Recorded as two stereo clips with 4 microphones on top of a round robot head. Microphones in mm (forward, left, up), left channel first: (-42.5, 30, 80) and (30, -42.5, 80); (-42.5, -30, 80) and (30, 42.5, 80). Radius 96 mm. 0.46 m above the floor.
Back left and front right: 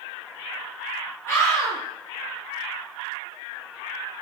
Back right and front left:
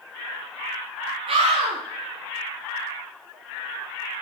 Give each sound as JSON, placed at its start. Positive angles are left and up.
{"t": 1.3, "sound": "a scream", "azimuth_deg": 70, "distance_m": 9.5}